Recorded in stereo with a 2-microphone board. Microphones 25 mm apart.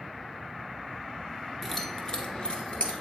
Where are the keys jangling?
10° left (ahead or behind), 0.9 m; by 2.9 s 45° left (ahead or behind), 1.2 m.